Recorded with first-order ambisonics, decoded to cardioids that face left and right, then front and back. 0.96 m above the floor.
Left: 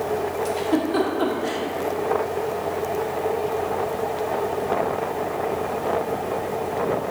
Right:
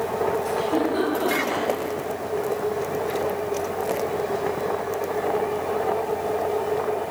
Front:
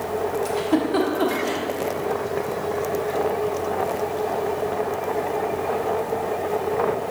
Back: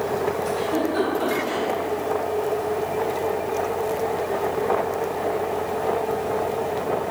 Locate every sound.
0.5 s a giggle: 35° left, 1.1 m